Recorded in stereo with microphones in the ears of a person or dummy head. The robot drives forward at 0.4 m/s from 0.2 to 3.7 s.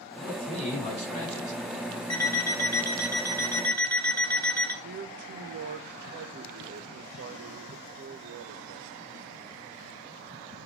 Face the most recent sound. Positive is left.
turn(degrees=-45)  # may be behind; listen again after turning